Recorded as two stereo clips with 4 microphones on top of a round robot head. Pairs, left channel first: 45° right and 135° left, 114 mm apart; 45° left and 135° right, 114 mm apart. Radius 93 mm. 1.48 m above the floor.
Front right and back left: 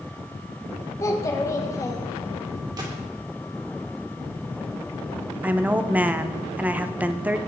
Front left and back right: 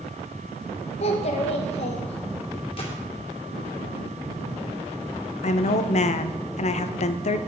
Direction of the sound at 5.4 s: 60° left.